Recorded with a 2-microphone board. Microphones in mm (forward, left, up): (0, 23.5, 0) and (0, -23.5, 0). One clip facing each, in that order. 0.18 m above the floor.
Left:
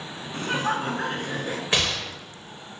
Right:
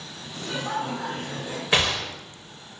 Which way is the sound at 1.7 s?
10° right (ahead or behind).